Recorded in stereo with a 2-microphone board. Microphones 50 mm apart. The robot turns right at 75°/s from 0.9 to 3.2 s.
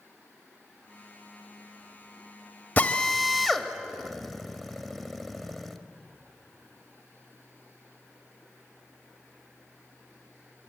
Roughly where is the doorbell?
I don't hear a doorbell.